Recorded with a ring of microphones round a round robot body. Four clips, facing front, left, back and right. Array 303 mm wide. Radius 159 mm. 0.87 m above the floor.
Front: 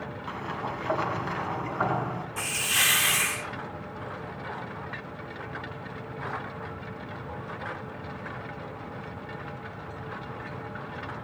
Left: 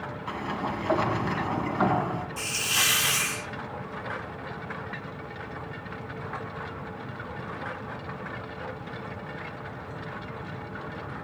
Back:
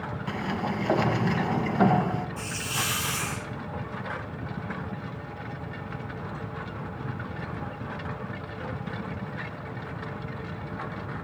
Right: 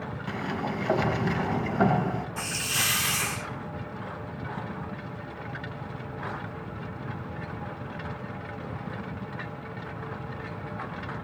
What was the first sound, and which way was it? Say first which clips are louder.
A sliding door: even, back 4 dB; 140° right.